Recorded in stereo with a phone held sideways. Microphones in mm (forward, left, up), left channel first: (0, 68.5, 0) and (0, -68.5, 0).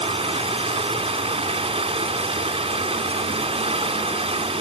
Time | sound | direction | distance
0.0 | running water | 45° right (ahead or behind) | 2 m